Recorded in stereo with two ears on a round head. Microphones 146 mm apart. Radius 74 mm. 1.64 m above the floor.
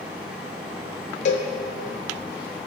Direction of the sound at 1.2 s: 45° left (ahead or behind).